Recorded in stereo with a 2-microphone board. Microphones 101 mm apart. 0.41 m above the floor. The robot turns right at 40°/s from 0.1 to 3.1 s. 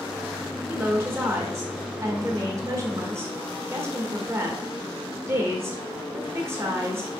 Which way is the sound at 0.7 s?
150° right.